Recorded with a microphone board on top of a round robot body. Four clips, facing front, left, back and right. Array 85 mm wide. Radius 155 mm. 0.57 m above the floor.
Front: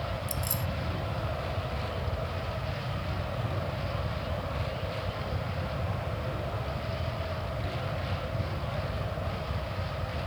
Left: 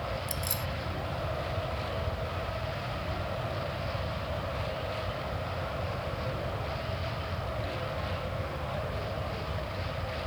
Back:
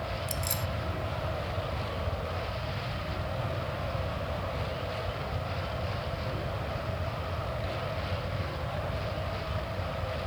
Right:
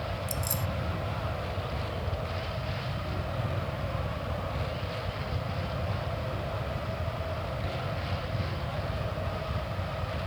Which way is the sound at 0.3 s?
155° left.